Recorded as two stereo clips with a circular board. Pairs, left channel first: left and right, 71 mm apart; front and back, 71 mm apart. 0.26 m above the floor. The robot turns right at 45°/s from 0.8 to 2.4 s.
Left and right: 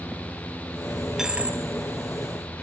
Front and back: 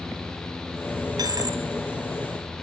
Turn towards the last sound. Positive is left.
turn(degrees=-120)